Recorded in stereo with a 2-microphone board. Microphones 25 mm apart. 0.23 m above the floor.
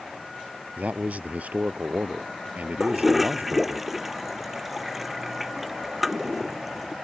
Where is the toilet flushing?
10° right (ahead or behind).